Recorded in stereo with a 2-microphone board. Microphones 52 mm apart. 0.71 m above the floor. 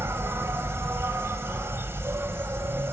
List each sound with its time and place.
0.0 s an insect: 55° right (ahead or behind), 1.2 m